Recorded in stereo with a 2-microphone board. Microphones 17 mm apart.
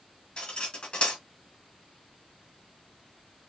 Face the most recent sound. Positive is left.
turn(degrees=85)